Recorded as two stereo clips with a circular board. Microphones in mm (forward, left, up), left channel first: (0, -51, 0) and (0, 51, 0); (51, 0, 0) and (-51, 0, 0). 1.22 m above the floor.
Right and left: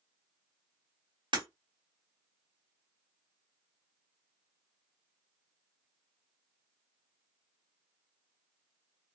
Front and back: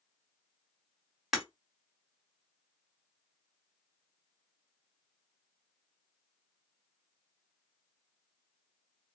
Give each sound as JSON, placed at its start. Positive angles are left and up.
{"t": 1.3, "sound": "breaking glass", "azimuth_deg": 95, "distance_m": 1.6}